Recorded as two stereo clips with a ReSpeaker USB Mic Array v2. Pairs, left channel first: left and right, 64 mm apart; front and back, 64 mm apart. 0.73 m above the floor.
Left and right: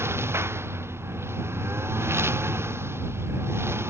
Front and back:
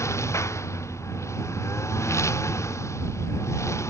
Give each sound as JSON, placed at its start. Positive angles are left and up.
{"t": 0.0, "sound": "a lawn mower", "azimuth_deg": -40}